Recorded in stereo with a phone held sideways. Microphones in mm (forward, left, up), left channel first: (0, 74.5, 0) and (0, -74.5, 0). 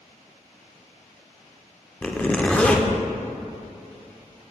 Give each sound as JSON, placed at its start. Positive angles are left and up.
{"t": 2.0, "sound": "a zipper", "side_deg": 10, "distance_m": 0.5}